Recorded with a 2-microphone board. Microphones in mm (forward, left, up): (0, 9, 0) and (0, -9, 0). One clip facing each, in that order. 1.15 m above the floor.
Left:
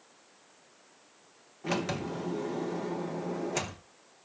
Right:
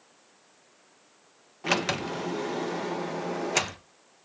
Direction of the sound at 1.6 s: 50° right (ahead or behind).